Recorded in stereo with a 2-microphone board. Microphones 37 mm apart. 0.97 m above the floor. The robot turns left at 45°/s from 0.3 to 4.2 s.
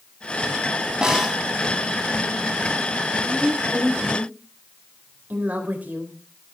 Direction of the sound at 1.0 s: 15° right (ahead or behind).